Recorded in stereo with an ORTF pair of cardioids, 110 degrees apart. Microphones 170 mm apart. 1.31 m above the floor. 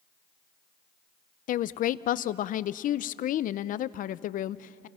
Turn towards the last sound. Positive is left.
turn(degrees=55)